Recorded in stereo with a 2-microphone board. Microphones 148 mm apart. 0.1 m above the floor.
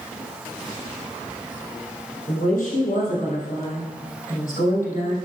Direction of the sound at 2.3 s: 65° left (ahead or behind).